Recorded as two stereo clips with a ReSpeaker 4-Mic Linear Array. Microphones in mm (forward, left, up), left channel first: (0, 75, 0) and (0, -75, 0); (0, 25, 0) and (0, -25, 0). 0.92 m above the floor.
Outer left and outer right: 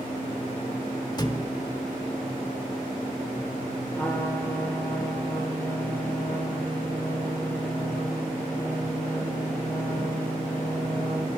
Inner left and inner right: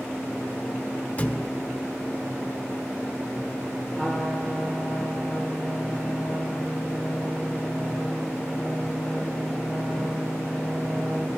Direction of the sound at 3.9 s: 15° left (ahead or behind).